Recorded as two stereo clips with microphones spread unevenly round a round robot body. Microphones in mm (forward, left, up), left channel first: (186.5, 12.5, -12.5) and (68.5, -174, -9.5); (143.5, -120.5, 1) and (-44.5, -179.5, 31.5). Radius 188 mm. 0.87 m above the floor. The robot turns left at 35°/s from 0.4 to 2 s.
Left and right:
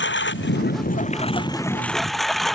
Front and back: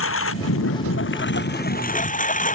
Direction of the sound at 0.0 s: 25° left.